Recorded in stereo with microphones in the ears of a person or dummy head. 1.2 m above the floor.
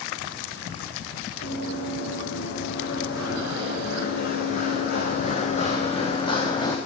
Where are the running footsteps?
80° left, 5.5 m; by 6.8 s 25° left (ahead or behind), 3.5 m.